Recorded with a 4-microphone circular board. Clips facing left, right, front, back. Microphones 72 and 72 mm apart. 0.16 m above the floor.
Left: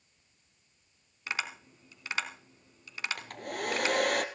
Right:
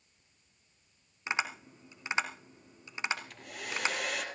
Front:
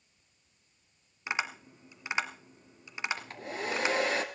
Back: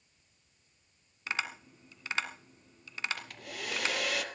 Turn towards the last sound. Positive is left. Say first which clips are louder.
# left 8 dB, front 5 dB
turn(degrees=60)